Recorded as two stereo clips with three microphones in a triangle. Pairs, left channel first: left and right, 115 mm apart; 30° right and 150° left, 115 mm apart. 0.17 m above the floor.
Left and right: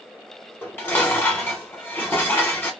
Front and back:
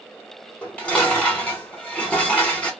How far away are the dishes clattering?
About 1.0 m.